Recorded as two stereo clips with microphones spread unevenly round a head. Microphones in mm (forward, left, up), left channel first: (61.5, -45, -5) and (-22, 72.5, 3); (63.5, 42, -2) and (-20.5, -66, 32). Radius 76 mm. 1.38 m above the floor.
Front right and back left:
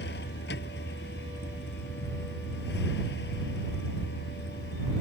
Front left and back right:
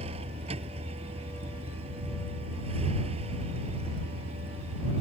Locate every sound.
0.0 s a vehicle: 85° right